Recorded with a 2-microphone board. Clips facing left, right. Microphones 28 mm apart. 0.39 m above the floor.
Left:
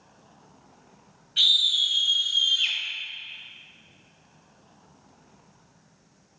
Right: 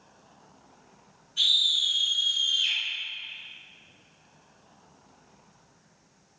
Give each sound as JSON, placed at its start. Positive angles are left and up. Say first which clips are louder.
{"t": 1.4, "sound": "a scream", "louder": "left 3 dB", "side_deg": 60, "distance_m": 2.0}